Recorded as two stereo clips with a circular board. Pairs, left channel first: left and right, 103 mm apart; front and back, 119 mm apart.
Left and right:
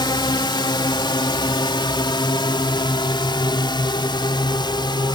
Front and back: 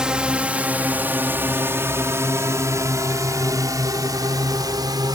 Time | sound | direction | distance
0.0 | a drone | 100° left | ?